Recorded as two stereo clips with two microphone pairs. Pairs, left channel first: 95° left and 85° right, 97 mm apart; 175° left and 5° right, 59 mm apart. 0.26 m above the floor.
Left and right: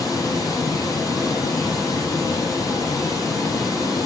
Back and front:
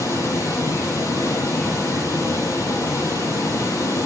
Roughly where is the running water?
Behind left.